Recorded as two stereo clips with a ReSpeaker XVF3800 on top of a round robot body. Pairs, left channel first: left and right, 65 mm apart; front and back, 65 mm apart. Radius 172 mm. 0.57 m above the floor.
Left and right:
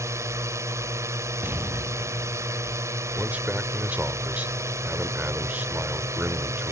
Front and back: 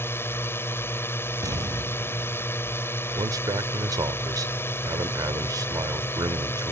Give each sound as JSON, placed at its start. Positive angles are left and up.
{"t": 0.0, "sound": "a drone", "azimuth_deg": -50}
{"t": 1.4, "sound": "an explosion", "azimuth_deg": -150}
{"t": 3.2, "sound": "a man speaking", "azimuth_deg": -160}